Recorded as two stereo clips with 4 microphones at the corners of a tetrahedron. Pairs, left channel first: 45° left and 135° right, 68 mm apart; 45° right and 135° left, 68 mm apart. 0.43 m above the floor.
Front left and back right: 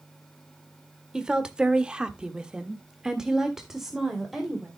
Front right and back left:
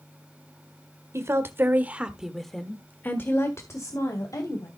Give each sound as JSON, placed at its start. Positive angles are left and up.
{"t": 1.1, "sound": "a woman speaking", "azimuth_deg": 150, "distance_m": 1.8}